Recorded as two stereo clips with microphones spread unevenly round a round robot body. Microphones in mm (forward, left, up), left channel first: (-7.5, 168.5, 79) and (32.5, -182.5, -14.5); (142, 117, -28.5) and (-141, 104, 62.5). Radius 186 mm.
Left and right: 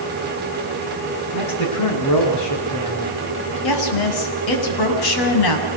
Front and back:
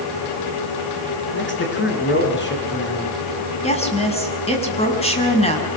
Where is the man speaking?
50° left, 7 m.